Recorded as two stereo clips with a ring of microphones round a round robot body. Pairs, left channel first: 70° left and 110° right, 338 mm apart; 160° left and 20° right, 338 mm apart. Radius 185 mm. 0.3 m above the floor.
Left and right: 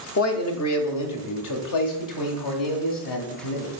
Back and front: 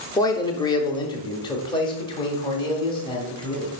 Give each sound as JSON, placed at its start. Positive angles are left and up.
{"t": 0.2, "sound": "a man speaking", "azimuth_deg": 85, "distance_m": 1.4}